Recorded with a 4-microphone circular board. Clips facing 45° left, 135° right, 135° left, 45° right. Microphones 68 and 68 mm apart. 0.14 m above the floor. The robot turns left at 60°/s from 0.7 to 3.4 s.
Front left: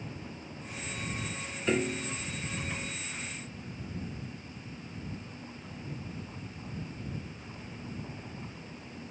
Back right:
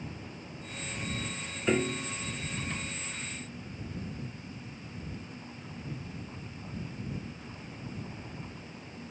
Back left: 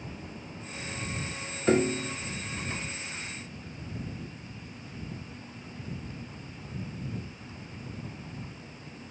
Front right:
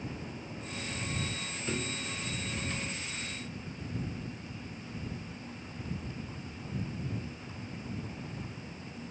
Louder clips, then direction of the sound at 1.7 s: Back right 1 dB, back left 13 dB; 140° left.